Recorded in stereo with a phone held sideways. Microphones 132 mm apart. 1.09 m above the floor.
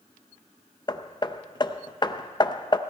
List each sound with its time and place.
0.9 s hammering: 35° left (ahead or behind), 0.6 m